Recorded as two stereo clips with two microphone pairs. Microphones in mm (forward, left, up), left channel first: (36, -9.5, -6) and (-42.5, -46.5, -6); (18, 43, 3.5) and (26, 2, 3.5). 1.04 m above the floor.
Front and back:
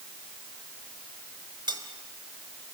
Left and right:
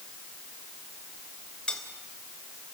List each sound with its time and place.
1.7 s cutlery clinking: 170° left, 2.5 m